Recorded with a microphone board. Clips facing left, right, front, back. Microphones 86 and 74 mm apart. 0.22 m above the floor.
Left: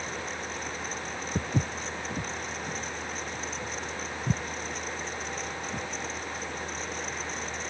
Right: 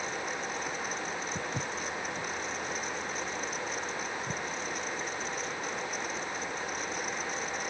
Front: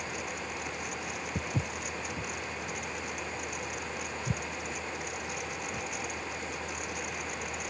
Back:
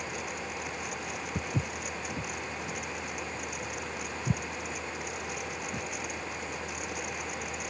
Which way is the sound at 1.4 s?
90° left.